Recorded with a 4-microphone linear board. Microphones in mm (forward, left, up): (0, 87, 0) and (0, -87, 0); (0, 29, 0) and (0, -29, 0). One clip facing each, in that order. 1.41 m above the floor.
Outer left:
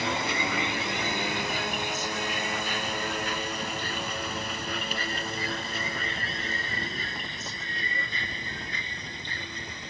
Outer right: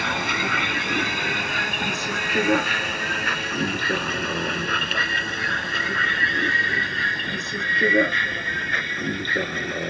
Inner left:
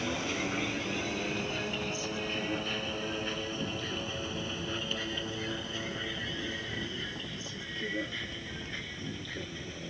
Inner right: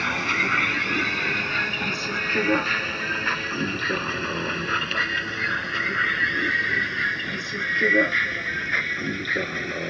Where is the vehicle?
65° right (ahead or behind); by 9.9 s 70° right (ahead or behind).